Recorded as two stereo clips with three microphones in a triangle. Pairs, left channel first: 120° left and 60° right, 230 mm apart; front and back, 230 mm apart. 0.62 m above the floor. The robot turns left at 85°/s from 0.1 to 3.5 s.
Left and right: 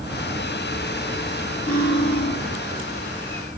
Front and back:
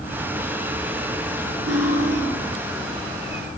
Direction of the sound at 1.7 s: Straight behind.